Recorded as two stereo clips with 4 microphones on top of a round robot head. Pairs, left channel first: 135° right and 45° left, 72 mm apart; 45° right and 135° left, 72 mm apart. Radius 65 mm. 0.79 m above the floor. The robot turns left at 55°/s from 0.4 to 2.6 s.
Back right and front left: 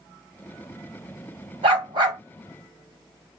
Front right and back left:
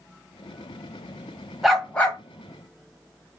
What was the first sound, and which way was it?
A dog barking, 50° left.